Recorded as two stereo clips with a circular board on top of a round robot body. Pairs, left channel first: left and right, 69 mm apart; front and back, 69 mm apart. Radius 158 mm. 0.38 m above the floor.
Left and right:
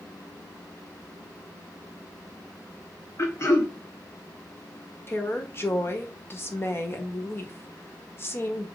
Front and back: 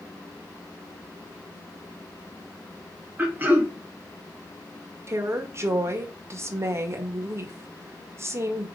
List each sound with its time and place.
3.2 s throat clearing: 125° left, 2 m
5.1 s a woman speaking: 140° left, 1.8 m